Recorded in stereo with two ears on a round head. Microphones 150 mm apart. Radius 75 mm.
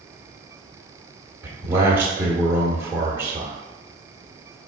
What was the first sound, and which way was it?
A man speaking, 15° right (ahead or behind).